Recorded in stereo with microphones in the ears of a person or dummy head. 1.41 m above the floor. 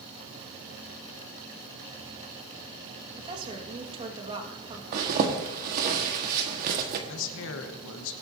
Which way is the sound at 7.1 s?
70° left (ahead or behind).